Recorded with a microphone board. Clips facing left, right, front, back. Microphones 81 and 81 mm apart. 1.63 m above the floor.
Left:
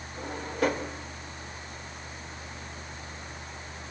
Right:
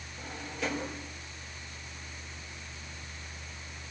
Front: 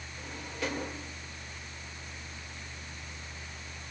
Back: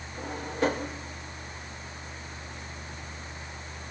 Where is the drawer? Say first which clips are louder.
Left 8 dB, back 9 dB; 130° left, 4 m.